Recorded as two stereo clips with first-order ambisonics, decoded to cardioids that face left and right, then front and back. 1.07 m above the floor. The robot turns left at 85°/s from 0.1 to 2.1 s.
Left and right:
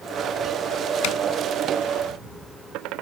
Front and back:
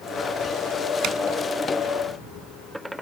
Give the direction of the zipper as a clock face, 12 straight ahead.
8 o'clock.